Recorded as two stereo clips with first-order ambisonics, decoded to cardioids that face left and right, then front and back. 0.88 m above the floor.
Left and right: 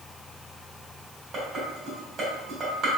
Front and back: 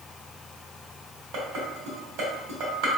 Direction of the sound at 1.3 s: 155° right.